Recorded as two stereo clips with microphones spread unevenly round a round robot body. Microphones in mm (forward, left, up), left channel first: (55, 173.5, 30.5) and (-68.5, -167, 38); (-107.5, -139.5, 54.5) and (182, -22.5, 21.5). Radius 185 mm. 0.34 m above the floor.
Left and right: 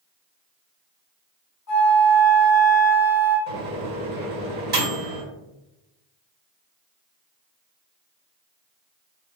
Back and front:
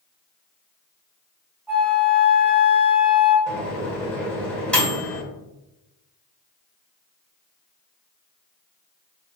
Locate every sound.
1.7 s a flute: 100° left, 1.0 m
3.5 s a microwave: 65° right, 1.4 m